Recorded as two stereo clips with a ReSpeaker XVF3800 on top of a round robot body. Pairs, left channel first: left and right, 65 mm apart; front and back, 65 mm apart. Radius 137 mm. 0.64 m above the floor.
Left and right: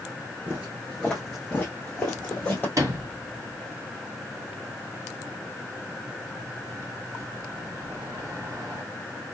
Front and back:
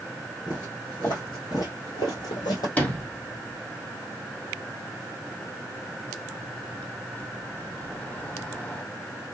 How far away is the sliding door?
About 1.7 m.